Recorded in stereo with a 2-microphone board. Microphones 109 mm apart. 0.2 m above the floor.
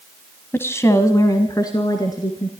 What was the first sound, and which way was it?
A woman speaking, 20° left (ahead or behind).